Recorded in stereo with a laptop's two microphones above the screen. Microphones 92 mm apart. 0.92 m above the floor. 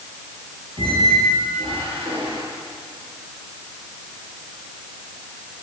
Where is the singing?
No singing in this recording.